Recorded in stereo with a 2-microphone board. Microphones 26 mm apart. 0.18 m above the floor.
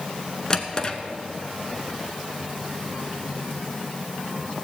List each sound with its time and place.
0.5 s a drawer: 25° left (ahead or behind), 1.0 m